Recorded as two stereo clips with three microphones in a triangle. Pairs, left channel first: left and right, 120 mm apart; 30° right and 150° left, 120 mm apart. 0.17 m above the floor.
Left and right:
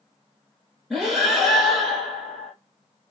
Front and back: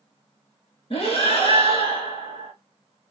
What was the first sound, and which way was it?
Breathing, 5° right.